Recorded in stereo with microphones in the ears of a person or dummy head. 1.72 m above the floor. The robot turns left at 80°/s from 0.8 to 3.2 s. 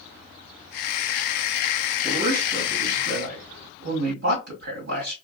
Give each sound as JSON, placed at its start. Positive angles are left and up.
{"t": 2.0, "sound": "a man speaking", "azimuth_deg": -30, "distance_m": 2.0}